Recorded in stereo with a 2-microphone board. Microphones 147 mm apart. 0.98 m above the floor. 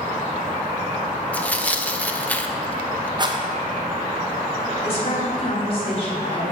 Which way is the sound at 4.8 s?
40° left (ahead or behind).